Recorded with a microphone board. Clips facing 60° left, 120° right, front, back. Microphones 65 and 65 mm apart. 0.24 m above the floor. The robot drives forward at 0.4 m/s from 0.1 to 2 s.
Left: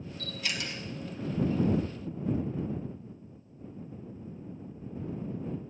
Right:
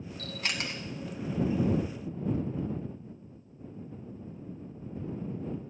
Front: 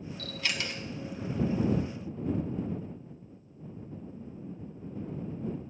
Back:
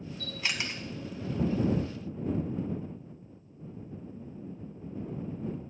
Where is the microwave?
I don't hear a microwave.